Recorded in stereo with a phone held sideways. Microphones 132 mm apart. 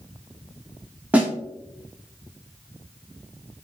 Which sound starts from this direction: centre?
A snare drum, at 1.1 s.